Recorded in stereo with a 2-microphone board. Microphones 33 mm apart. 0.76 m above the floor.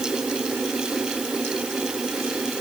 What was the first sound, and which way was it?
Only background noise.